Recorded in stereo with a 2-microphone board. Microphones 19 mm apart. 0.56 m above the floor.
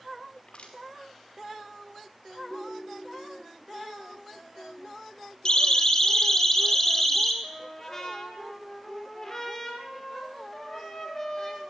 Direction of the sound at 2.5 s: 25° left (ahead or behind).